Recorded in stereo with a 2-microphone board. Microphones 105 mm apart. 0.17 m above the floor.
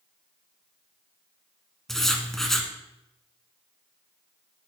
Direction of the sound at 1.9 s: 5° left (ahead or behind).